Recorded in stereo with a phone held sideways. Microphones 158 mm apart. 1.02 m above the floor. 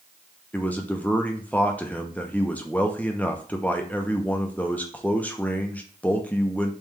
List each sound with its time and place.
0.5 s a man speaking: 10° left (ahead or behind), 0.6 m